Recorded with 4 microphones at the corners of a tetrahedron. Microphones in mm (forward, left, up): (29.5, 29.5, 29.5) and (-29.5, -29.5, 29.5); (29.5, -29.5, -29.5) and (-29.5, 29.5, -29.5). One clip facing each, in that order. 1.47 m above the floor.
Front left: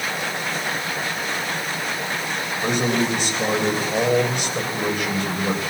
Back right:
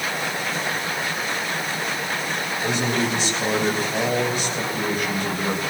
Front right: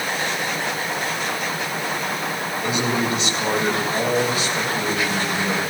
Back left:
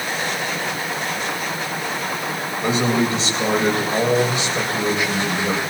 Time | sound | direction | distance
2.6 | a man speaking | 80° left | 7.5 m